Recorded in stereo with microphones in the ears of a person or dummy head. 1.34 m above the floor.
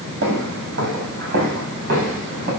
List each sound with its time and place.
0.2 s footsteps: 65° right (ahead or behind), 4.5 m; by 2.5 s 60° right (ahead or behind), 7 m